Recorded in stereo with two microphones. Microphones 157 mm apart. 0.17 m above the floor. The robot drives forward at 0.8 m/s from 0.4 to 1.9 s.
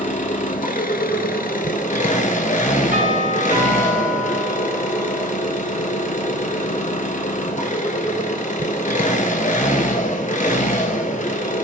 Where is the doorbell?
50° right (ahead or behind), 3.5 m.